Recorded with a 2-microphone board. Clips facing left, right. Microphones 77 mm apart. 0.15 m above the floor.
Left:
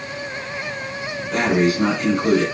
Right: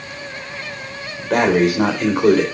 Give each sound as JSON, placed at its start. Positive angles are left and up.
{"t": 1.3, "sound": "breathing", "side_deg": -60, "distance_m": 3.0}